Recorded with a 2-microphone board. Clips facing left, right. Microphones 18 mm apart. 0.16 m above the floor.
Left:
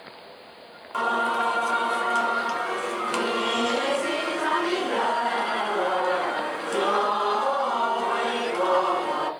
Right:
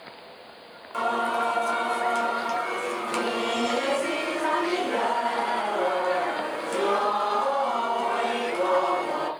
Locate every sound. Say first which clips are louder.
0.9 s singing: left 1 dB; 10° left (ahead or behind), 0.9 m